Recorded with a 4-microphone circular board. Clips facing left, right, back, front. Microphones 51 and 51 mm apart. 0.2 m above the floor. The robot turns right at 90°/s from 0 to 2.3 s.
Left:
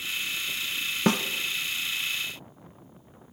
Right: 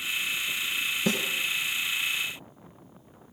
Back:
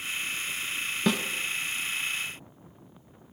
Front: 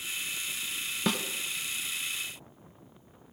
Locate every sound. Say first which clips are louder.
1.1 s a snare drum: left 5 dB, back 4 dB; 85° left, 1.1 m; by 1.2 s 105° left, 1.1 m